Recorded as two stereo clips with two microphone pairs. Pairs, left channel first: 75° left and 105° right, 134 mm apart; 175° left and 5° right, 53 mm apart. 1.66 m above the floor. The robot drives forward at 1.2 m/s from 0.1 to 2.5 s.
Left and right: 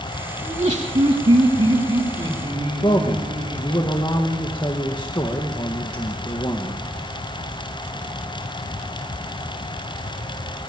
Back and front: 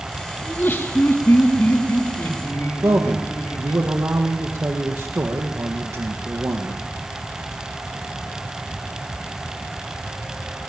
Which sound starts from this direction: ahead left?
A man speaking, at 2.8 s.